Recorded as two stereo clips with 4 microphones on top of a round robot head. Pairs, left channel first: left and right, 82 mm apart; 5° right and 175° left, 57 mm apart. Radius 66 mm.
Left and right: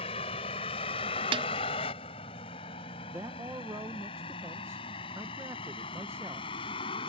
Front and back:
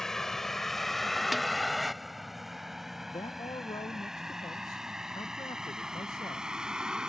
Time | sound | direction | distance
0.0 | a vehicle | 75° left | ?
1.3 | a snare drum | 95° right | ?
3.1 | a man speaking | 25° right | ?